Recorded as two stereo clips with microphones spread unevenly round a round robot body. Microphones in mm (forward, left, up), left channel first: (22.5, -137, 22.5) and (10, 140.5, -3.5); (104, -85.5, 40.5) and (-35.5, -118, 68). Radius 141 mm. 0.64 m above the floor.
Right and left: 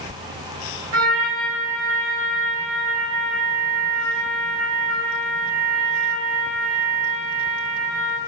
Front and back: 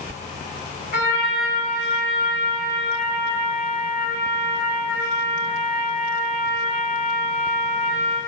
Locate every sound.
0.9 s a trumpet: 50° left, 1.8 m